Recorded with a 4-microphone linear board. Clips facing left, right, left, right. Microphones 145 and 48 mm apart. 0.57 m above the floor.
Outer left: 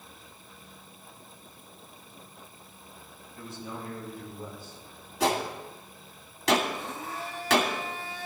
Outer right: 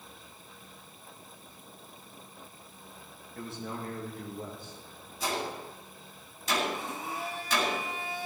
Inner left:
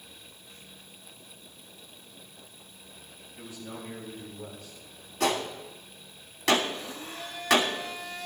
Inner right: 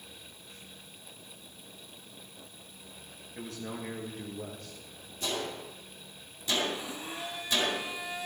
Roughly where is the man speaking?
Right.